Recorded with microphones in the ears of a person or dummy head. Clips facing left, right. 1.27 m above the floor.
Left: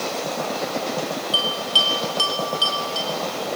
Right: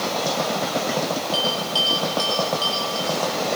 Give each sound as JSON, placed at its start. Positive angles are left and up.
{"t": 1.3, "sound": "a bell", "side_deg": 40, "distance_m": 2.5}